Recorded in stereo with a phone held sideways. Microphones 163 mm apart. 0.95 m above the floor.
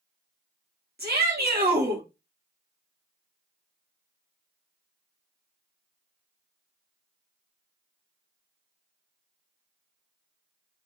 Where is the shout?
75° right (ahead or behind), 1.7 m.